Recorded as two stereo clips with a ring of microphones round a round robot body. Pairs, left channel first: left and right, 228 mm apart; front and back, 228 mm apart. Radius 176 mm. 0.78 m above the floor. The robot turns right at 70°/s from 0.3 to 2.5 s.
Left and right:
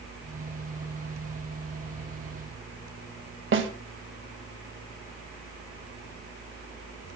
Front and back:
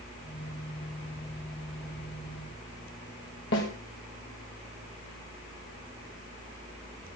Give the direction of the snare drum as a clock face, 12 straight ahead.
2 o'clock.